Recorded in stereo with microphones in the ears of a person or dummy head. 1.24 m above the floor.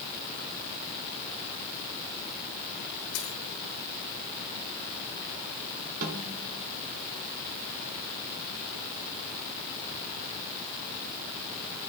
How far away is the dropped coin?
About 6 m.